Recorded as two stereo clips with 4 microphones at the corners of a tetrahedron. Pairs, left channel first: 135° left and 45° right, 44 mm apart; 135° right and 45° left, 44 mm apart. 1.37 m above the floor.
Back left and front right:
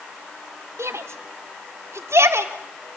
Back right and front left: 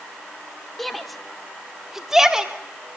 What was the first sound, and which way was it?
A shout, 45° right.